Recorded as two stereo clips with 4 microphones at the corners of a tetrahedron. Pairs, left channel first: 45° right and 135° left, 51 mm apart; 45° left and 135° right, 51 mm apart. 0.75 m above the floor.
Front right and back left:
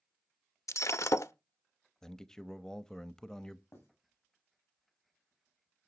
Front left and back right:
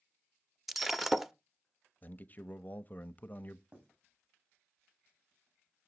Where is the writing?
80° right, 9.5 m.